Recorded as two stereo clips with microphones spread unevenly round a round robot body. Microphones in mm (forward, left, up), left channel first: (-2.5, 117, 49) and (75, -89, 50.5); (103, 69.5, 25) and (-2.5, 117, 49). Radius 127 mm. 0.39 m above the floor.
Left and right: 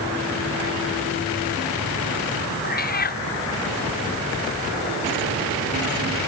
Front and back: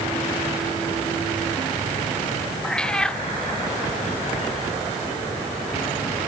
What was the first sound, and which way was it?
A cat meowing, 60° left.